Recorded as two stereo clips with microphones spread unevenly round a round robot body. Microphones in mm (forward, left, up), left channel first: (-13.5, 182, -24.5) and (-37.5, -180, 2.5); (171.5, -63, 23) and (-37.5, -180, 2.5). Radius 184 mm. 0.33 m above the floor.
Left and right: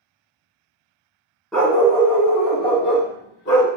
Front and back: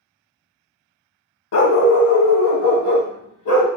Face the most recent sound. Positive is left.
turn(degrees=25)